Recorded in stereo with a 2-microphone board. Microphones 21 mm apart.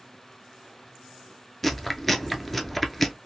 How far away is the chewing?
About 0.5 m.